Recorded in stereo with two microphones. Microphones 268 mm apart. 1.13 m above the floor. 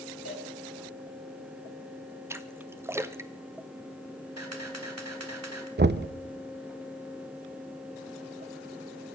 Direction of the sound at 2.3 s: 10° right (ahead or behind).